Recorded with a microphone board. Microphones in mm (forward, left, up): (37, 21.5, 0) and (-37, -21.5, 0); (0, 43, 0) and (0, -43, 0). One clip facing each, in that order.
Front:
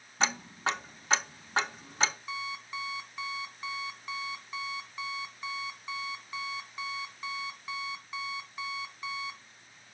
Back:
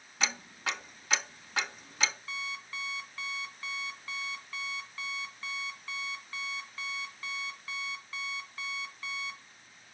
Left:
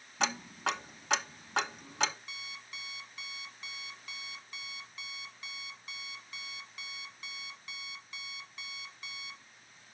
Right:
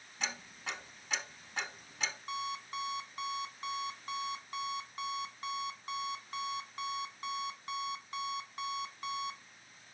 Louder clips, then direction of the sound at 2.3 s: Front 3 dB, right 11 dB; 40° right.